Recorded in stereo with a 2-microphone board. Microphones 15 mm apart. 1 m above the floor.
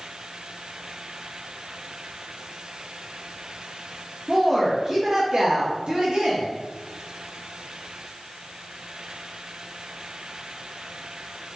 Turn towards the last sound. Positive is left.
turn(degrees=-75)  # may be behind; listen again after turning